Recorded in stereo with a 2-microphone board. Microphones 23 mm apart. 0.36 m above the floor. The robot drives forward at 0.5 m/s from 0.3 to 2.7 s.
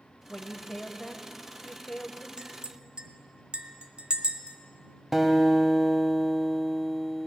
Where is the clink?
40° right (ahead or behind), 0.8 m; by 4.6 s 45° right (ahead or behind), 0.7 m.